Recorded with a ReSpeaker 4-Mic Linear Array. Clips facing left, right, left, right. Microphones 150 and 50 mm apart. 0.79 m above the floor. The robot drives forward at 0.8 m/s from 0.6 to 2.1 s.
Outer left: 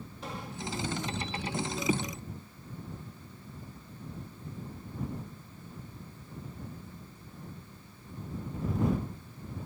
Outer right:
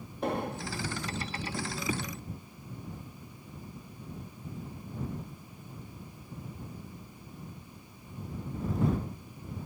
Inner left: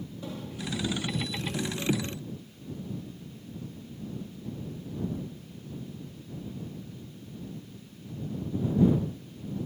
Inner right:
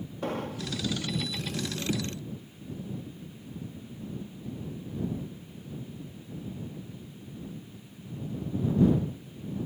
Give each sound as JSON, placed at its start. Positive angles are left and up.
{"t": 0.2, "sound": "an explosion", "side_deg": -55}